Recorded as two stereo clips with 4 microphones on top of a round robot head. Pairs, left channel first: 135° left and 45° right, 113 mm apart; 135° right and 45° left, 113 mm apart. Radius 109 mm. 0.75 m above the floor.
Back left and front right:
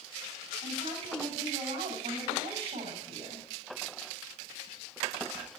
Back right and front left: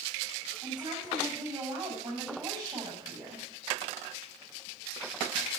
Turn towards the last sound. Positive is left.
turn(degrees=-15)